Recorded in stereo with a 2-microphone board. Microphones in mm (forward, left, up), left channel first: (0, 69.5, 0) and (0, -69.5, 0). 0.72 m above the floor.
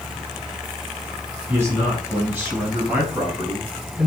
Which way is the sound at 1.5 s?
20° right (ahead or behind).